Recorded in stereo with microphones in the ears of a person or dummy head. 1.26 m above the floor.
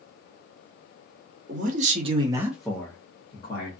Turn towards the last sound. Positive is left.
turn(degrees=30)  # may be behind; listen again after turning